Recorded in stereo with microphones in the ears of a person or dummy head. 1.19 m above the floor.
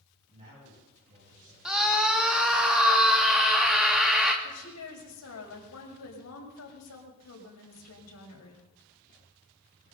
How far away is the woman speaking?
About 6 m.